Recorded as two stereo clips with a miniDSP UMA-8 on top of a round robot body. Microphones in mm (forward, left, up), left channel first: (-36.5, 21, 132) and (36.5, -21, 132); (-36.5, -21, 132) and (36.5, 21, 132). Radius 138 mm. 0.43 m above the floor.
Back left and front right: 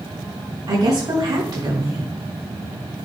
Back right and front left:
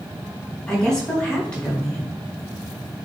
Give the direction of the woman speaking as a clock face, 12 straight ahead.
2 o'clock.